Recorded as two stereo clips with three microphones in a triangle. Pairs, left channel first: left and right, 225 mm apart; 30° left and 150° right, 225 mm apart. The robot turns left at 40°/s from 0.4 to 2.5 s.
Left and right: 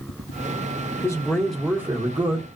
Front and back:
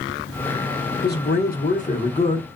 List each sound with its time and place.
1.0 s a man speaking: 20° left, 0.9 m; by 2.5 s 40° right, 0.9 m